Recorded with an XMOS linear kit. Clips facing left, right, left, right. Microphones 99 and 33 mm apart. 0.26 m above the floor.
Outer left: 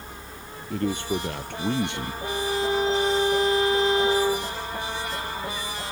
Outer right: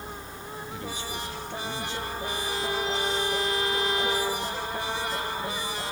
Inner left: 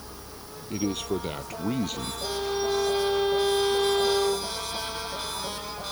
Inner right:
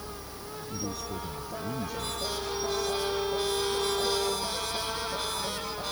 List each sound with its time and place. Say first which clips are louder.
0.7 s a man speaking: outer left 12 dB, inner left 9 dB; 60° left (ahead or behind); by 2.1 s 70° left (ahead or behind)
2.2 s a violin: outer left 8 dB, inner left 6 dB; 30° left (ahead or behind)